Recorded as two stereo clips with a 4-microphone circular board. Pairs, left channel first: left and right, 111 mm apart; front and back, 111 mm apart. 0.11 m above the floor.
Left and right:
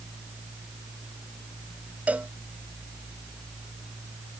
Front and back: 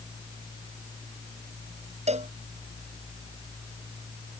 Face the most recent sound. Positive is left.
turn(degrees=-165)